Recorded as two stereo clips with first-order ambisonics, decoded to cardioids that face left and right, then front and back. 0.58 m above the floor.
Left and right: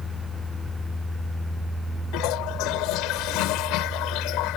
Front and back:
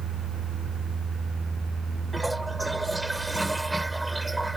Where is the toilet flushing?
95° left.